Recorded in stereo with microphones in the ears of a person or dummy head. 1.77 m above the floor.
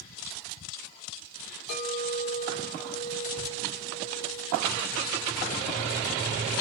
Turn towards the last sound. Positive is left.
turn(degrees=30)  # may be behind; listen again after turning